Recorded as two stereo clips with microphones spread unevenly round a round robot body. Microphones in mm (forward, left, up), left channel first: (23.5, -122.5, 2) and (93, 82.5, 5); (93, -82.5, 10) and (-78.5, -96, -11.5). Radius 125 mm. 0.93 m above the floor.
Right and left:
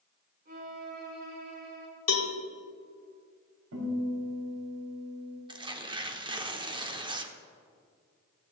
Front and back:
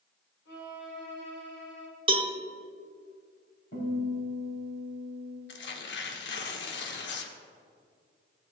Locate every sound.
0.5 s a violin: 30° left, 4.5 m
2.1 s a cowbell: 115° right, 1.4 m
3.7 s a guitar: 60° left, 5 m
5.5 s tearing paper: straight ahead, 1.1 m